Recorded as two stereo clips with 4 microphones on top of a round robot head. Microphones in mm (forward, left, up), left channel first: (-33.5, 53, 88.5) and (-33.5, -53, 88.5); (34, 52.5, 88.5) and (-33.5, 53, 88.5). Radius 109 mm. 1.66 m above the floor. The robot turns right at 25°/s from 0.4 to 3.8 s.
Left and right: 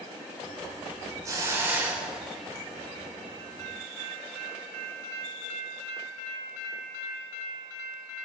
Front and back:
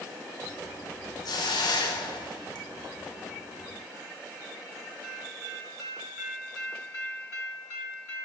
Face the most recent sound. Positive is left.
turn(degrees=35)